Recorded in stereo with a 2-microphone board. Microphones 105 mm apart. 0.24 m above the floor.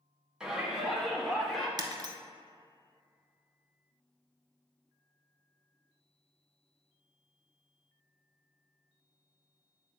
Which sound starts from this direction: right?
Breaking glass, at 1.8 s.